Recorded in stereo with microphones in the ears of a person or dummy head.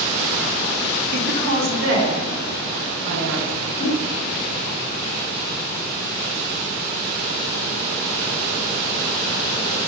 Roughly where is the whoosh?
Left.